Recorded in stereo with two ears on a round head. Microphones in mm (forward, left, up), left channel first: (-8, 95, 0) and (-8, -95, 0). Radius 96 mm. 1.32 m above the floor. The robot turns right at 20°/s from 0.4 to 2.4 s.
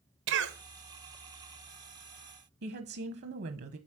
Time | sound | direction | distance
0.3 | a cough | 60° right (ahead or behind) | 1.2 m
2.6 | a woman speaking | 50° right (ahead or behind) | 1.0 m